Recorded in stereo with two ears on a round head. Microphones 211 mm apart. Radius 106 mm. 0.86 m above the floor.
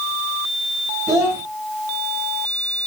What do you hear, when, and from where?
1.1 s a child speaking: 10° right (ahead or behind), 2 m